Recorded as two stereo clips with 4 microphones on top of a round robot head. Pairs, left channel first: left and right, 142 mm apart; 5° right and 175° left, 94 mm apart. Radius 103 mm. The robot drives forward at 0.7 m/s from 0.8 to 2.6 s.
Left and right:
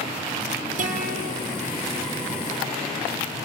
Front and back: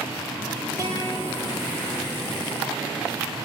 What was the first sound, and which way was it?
A guitar, 115° right.